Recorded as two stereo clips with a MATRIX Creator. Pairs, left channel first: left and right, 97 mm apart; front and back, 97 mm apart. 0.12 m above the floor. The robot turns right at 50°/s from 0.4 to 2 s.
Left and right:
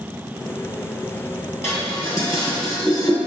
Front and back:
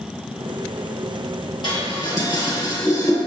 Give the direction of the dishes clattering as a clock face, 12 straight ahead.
11 o'clock.